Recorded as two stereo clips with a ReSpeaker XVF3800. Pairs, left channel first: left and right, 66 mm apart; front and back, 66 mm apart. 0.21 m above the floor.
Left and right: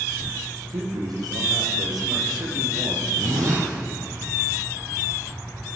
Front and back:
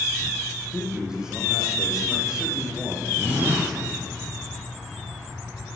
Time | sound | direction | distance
0.7 | a man speaking | 100° right | 8 m
3.2 | a zipper | 115° right | 7 m